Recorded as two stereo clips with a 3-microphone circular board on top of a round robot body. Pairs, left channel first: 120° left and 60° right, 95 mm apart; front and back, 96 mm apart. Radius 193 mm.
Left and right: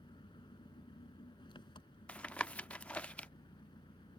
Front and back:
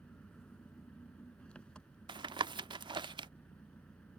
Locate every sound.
0.0 s an engine running: 80° left
2.1 s tapping: 165° right